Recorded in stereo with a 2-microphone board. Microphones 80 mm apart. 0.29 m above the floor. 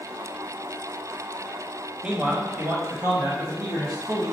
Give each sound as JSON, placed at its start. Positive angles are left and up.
{"t": 2.0, "sound": "a man speaking", "side_deg": -10, "distance_m": 1.0}